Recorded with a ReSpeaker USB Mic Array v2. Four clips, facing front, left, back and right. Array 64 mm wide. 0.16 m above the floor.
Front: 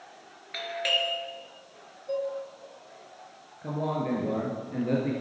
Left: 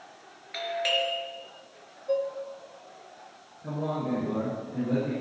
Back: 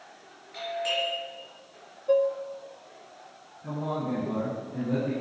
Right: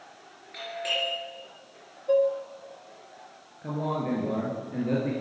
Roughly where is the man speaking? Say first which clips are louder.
Right 1 dB, front 2 dB; ahead right.